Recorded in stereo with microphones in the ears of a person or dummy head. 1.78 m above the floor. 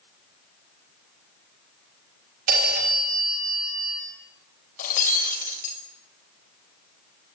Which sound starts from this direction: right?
A phone ringing, at 2.5 s.